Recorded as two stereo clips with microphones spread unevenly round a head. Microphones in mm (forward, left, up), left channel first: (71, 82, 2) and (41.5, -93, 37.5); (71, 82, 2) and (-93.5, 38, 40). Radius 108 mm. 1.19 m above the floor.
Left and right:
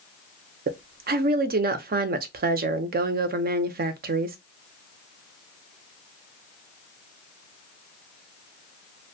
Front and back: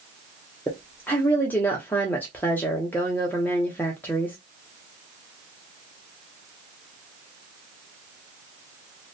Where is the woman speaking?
70° right, 0.6 m.